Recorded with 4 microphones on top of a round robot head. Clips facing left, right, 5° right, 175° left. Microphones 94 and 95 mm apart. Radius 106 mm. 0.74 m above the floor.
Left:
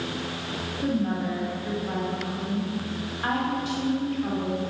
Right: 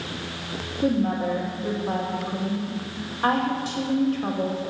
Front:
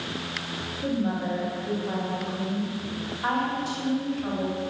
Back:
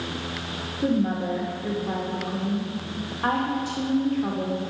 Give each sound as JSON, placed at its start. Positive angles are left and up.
{"t": 0.8, "sound": "a woman speaking", "azimuth_deg": -145, "distance_m": 2.5}